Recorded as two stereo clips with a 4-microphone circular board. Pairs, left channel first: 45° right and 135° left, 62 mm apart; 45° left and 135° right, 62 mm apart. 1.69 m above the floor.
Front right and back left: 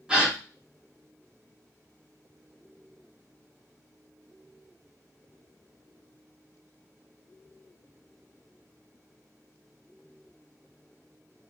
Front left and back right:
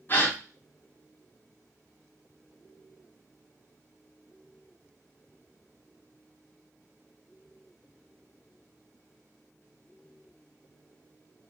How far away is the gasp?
About 1.5 m.